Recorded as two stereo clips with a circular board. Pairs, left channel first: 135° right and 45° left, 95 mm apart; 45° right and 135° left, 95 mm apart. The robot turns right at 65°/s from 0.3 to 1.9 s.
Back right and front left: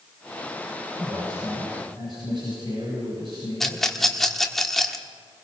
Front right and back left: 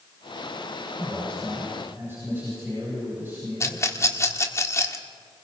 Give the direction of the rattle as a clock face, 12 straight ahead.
2 o'clock.